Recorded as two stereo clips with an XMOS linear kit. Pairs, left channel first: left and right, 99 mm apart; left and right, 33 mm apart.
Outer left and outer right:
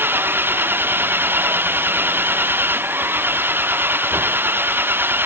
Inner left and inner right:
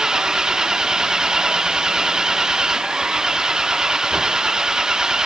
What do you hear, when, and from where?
0.0 s an engine running: 20° right (ahead or behind)